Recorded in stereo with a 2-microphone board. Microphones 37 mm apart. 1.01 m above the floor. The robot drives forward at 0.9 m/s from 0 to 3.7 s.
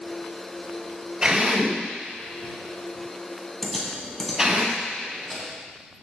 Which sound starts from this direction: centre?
Typing on a keyboard, at 3.6 s.